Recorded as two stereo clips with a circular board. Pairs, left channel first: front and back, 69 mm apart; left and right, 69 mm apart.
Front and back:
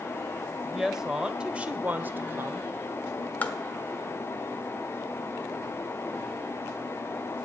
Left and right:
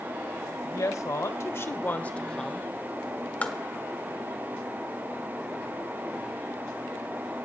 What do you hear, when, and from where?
0.6 s a woman speaking: 95° left, 1.5 m; by 2.7 s 175° right, 1.0 m
3.4 s tapping: 40° left, 1.2 m